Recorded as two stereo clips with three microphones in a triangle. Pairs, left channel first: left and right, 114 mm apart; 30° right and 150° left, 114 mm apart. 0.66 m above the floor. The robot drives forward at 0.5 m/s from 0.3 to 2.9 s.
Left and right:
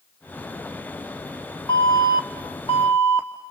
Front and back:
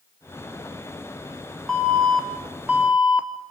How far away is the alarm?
About 2 m.